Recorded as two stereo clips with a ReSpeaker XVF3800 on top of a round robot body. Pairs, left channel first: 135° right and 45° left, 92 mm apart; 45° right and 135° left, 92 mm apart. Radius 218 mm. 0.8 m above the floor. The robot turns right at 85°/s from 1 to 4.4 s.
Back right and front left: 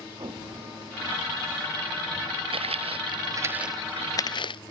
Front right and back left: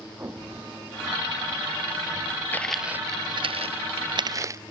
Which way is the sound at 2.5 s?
25° left.